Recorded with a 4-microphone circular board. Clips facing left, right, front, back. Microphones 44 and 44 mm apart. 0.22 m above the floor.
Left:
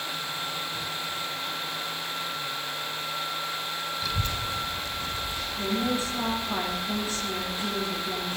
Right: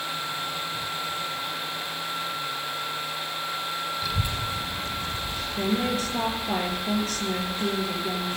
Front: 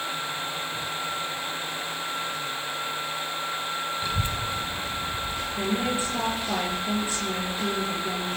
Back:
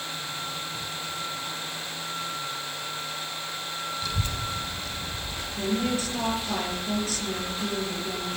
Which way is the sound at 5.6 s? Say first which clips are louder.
Right 2 dB, even; 70° right.